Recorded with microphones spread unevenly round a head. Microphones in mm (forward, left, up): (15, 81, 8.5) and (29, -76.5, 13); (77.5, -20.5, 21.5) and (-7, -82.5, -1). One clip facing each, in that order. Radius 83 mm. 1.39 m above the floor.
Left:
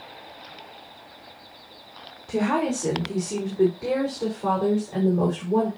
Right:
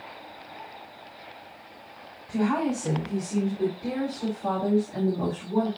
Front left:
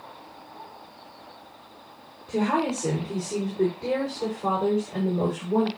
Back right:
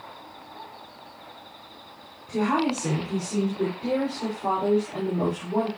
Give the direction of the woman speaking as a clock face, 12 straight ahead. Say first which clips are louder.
Left 2 dB, even; 9 o'clock.